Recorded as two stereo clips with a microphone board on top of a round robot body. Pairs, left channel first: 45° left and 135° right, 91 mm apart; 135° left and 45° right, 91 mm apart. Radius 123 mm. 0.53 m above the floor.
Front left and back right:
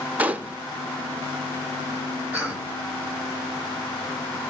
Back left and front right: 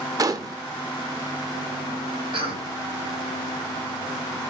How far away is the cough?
About 4.5 m.